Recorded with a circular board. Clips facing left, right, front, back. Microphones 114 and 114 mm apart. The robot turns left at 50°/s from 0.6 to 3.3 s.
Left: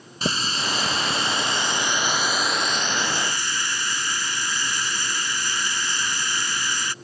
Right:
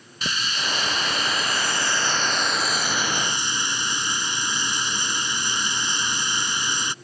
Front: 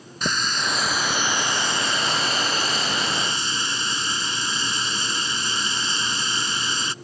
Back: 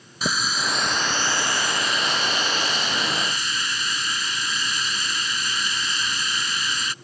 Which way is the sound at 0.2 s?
95° left.